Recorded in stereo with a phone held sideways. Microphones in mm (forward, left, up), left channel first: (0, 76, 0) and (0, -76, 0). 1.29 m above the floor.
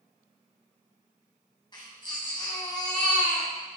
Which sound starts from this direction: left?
A baby crying, at 1.7 s.